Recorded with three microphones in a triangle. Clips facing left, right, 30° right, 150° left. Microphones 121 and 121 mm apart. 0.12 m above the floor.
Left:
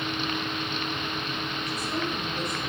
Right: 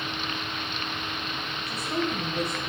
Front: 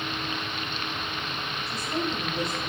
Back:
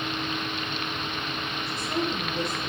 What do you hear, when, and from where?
1.7 s a woman speaking: 145° right, 5 m